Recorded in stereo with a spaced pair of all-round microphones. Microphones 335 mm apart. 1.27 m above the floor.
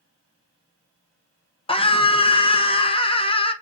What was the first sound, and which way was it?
A scream, 15° left (ahead or behind).